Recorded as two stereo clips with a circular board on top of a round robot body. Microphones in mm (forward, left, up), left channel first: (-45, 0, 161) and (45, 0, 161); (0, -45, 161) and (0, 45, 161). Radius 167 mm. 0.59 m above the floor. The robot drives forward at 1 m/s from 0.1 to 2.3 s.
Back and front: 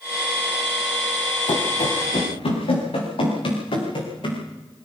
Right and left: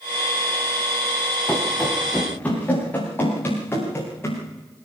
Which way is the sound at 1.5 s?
170° right.